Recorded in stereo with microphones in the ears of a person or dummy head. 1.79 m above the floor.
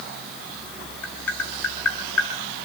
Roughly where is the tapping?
Centre.